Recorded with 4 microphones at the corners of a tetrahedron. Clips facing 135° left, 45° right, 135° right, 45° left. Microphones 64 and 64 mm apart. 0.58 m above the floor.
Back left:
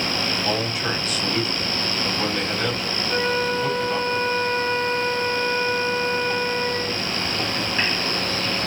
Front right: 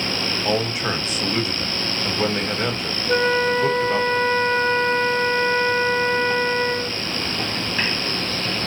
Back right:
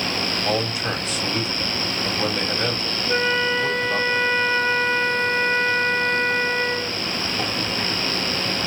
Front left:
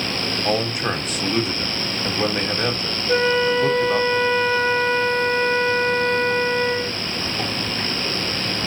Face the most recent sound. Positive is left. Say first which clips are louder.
# front right 5 dB, front left 3 dB
turn(degrees=-30)